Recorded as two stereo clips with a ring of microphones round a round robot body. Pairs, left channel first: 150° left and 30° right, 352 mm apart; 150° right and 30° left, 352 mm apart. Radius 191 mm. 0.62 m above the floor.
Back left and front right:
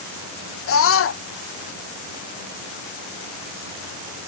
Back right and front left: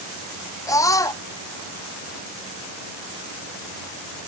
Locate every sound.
0.7 s a scream: 135° left